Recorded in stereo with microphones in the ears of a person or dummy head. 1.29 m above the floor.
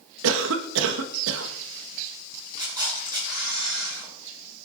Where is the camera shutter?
25° right (ahead or behind), 5 m.